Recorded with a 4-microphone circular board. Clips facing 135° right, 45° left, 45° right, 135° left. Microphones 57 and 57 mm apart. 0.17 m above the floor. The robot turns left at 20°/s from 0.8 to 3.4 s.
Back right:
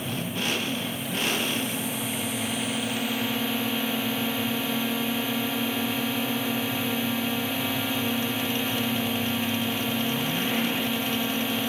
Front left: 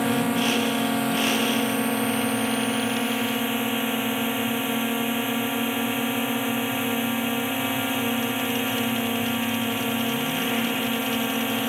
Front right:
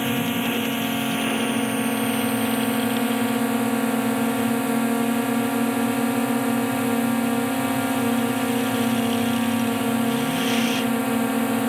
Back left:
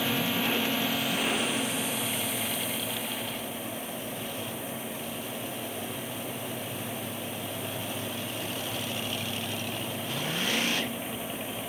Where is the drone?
25° left; by 11.7 s 25° right.